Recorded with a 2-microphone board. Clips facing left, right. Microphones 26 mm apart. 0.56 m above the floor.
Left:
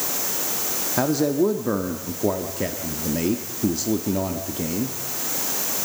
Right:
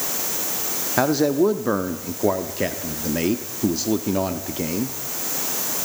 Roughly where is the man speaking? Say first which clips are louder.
Right 2 dB; right.